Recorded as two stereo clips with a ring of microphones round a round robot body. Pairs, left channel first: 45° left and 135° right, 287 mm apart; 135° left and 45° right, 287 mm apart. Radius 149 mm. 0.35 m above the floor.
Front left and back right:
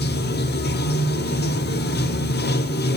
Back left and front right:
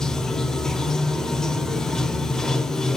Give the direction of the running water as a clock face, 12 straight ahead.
10 o'clock.